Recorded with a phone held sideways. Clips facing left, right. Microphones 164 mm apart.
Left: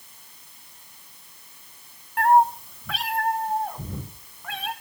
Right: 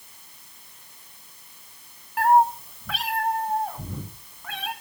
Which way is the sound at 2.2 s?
Centre (ahead or behind).